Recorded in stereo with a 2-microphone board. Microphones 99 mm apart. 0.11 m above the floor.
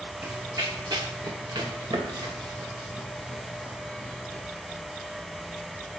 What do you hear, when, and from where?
0.2 s running footsteps: 30° right (ahead or behind), 0.5 m; by 4.4 s 65° right (ahead or behind), 2.5 m